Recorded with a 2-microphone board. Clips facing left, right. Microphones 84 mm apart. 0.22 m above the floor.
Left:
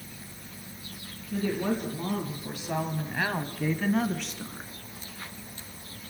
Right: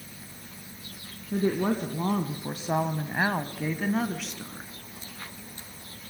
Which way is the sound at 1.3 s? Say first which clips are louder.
Right 3 dB; 40° right (ahead or behind).